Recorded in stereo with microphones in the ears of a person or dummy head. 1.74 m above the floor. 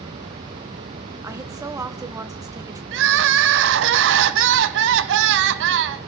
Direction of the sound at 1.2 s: 15° right (ahead or behind).